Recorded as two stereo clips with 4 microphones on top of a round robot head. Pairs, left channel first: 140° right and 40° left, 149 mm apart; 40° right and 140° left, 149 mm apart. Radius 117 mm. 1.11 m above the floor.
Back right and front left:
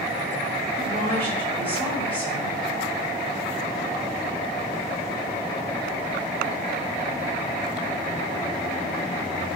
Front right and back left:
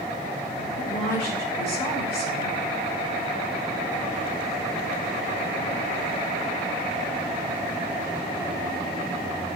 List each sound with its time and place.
0.8 s a woman speaking: 60° right, 6 m